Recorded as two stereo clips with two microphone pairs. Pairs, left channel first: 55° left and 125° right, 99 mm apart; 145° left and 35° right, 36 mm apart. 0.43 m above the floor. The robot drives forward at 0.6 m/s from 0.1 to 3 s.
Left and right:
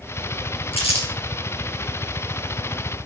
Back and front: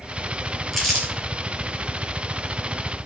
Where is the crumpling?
55° left, 3.5 m; by 1.1 s 60° left, 3.5 m.